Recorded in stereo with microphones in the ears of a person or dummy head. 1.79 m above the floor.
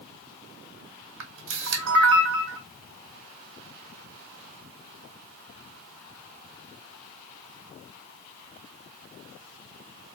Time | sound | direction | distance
1.2 | a camera shutter | 65° right (ahead or behind) | 1.3 m